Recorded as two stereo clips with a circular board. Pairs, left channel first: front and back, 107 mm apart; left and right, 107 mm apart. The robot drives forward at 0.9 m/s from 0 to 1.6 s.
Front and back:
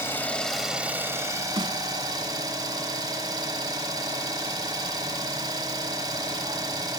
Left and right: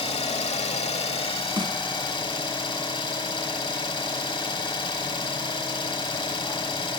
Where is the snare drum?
140° right, 1.0 m.